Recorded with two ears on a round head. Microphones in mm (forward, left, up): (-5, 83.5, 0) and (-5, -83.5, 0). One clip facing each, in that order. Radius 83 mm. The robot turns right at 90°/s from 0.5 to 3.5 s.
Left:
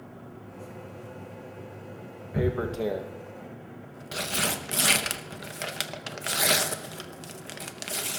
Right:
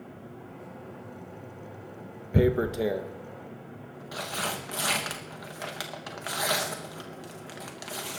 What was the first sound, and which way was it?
Tearing paper, 35° right (ahead or behind).